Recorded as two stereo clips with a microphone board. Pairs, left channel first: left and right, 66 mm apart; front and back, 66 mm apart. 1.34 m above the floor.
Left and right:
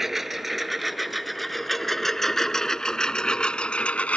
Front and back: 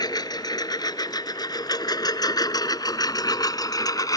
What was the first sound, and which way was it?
A lawn mower, 5° right.